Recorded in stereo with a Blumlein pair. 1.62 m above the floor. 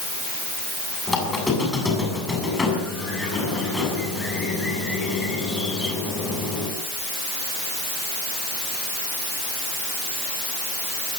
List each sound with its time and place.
1.1 s a squeak: 10° left, 7 m